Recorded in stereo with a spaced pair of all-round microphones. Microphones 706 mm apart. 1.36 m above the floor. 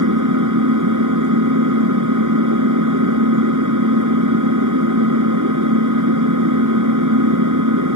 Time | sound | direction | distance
0.0 | an engine running | 25° right (ahead or behind) | ?